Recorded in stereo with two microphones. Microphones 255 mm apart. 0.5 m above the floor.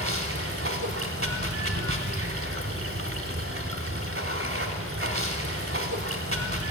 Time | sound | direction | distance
0.0 | running water | 60° right (ahead or behind) | 1.1 m